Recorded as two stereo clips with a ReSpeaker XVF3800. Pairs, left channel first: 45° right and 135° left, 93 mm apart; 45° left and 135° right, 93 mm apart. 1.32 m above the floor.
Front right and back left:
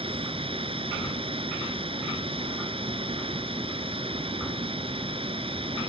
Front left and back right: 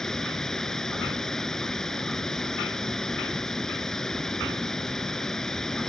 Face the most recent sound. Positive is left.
turn(degrees=130)